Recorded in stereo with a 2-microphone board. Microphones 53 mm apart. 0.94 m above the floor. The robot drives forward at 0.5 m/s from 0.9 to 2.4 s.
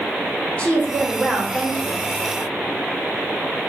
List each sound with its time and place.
0.6 s a woman speaking: 25° left (ahead or behind), 2 m; by 2.0 s 30° left (ahead or behind), 1.6 m